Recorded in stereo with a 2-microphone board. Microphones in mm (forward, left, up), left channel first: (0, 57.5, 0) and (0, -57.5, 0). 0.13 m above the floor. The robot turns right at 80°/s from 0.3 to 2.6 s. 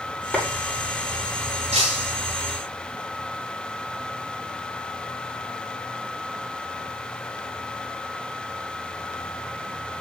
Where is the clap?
15° left (ahead or behind), 7.5 m; by 0.4 s 5° left (ahead or behind), 7.5 m.